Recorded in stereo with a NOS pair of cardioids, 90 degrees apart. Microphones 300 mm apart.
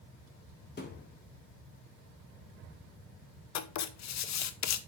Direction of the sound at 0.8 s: 35° left.